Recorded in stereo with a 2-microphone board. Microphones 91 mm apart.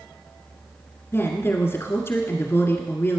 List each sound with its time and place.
1.1 s a woman speaking: 25° left (ahead or behind), 1.5 m